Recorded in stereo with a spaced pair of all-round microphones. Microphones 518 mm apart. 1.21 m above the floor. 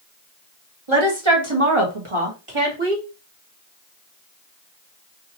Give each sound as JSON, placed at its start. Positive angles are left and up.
{"t": 0.9, "sound": "a woman speaking", "side_deg": -70, "distance_m": 1.6}